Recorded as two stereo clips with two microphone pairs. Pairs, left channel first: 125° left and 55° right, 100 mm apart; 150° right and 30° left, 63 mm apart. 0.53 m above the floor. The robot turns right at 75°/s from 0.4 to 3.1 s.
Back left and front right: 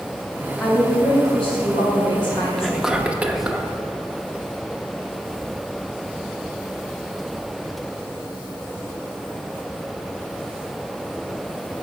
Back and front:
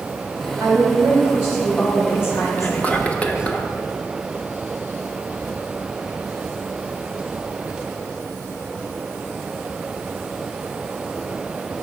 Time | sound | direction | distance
0.6 | a woman speaking | 40° left | 3 m
2.6 | whispering | 155° right | 0.7 m